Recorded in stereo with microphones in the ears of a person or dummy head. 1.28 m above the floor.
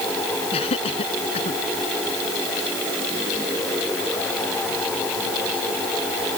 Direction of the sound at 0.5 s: 30° left (ahead or behind).